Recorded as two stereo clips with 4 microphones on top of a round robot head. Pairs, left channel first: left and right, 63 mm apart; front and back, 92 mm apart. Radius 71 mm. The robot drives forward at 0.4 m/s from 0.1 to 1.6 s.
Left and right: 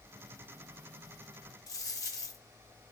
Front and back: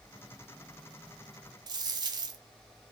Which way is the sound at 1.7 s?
135° left.